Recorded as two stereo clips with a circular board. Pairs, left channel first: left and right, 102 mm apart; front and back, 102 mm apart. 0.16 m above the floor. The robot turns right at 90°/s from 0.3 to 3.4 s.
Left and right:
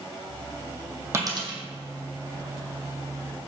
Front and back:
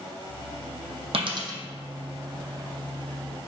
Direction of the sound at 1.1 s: 155° right.